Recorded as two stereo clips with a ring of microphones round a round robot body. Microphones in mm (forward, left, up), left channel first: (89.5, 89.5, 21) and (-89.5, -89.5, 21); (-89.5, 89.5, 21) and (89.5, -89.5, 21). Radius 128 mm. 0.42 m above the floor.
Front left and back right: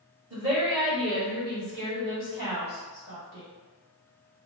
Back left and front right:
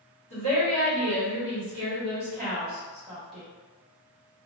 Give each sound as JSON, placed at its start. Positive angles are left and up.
{"t": 0.3, "sound": "a woman speaking", "azimuth_deg": -55, "distance_m": 1.7}